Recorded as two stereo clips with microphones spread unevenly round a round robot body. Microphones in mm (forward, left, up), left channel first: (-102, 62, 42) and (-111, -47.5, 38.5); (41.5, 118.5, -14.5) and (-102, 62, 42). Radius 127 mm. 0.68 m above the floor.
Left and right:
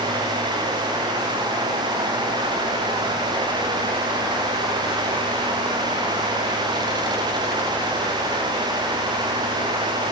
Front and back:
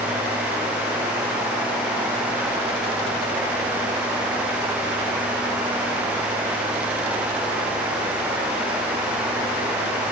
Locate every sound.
Only background noise.